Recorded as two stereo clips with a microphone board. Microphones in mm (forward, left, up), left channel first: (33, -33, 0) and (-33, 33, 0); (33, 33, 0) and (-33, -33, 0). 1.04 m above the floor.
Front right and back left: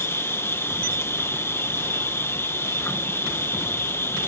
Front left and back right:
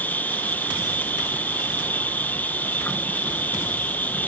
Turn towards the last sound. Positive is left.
turn(degrees=-10)